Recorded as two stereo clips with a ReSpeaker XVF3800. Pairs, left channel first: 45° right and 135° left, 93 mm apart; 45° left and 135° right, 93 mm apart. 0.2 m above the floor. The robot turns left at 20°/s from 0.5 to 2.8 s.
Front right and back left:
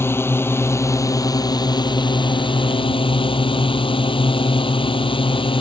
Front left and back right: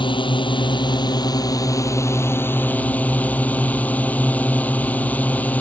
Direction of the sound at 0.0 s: 20° left.